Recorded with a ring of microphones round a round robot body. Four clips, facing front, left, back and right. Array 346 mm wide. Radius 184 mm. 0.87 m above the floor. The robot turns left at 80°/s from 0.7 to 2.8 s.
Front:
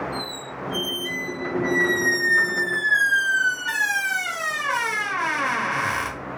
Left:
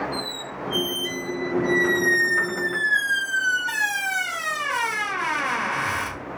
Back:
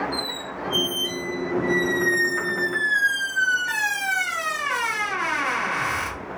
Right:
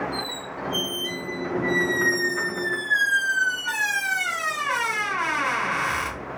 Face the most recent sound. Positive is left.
turn(degrees=-25)